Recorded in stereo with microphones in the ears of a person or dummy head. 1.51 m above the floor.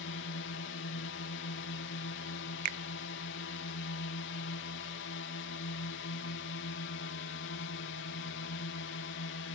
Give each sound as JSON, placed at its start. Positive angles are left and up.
{"t": 0.0, "sound": "a drone", "side_deg": 60}
{"t": 2.6, "sound": "a finger snap", "side_deg": -50}